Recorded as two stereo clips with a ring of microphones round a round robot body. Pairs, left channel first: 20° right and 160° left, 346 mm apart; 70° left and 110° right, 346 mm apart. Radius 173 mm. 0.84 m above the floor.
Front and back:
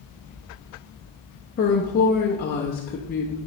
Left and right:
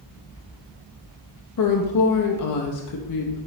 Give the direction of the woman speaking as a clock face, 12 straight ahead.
11 o'clock.